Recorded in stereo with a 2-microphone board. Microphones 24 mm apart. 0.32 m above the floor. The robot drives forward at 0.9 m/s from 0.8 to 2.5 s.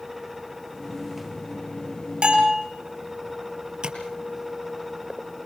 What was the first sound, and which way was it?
A bell, 50° right (ahead or behind).